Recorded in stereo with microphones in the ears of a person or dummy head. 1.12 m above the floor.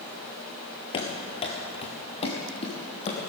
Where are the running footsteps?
30° left (ahead or behind), 1.5 m; by 3.2 s 40° left (ahead or behind), 2.5 m.